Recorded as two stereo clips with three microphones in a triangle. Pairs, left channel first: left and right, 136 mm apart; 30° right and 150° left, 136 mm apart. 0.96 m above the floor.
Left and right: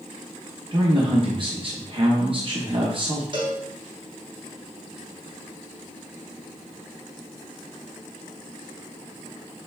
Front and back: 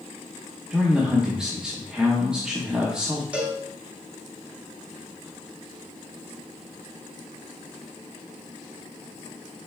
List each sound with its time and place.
0.7 s a man speaking: 130° right, 0.8 m
3.3 s a cowbell: 130° right, 1.0 m